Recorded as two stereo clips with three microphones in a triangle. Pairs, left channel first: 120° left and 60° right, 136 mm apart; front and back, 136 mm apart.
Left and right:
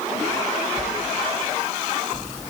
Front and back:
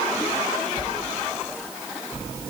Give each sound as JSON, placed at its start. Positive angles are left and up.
{"t": 0.8, "sound": "a sliding door", "azimuth_deg": -55, "distance_m": 1.5}